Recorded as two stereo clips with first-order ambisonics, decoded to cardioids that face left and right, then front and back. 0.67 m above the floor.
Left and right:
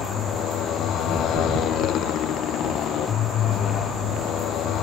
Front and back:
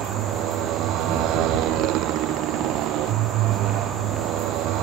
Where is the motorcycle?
140° left.